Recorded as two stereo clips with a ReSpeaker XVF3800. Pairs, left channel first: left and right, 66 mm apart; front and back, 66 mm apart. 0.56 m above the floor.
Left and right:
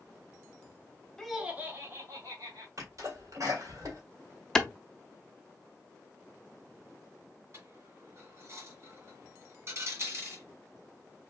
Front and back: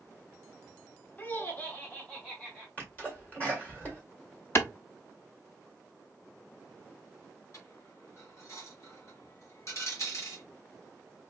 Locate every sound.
1.2 s laughter: 20° left, 0.7 m; by 2.7 s 75° right, 1.9 m
2.8 s a sneeze: 65° right, 1.8 m
4.5 s a clap: 10° left, 0.6 m
7.5 s a dropped coin: 40° right, 1.6 m